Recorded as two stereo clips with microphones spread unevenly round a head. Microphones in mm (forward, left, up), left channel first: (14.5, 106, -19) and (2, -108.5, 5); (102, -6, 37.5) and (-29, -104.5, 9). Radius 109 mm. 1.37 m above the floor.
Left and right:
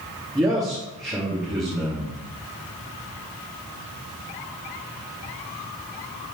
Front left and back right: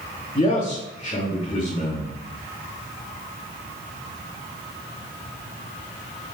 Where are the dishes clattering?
No dishes clattering in this recording.